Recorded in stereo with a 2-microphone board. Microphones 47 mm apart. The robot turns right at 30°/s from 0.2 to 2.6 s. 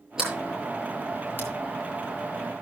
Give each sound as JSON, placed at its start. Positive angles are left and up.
{"t": 0.2, "sound": "a sliding door", "side_deg": -10, "distance_m": 8.0}